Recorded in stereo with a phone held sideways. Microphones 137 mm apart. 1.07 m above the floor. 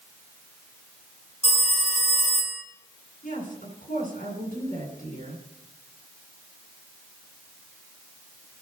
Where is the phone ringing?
55° left (ahead or behind), 2.5 m.